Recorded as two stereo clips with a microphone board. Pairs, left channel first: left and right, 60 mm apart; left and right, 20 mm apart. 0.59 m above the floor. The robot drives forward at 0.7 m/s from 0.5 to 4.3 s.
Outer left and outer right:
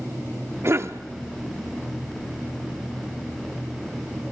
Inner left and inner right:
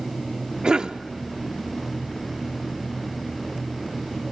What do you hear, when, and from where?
0.6 s a cough: 50° right (ahead or behind), 0.9 m